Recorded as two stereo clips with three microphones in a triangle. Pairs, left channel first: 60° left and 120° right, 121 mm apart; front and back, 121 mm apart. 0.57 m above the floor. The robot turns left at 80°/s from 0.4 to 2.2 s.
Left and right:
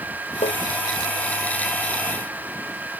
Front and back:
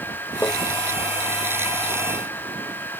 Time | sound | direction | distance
0.4 | tapping | 75° left | ?